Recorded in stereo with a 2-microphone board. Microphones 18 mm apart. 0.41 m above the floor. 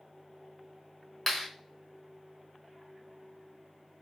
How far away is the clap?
About 1.2 m.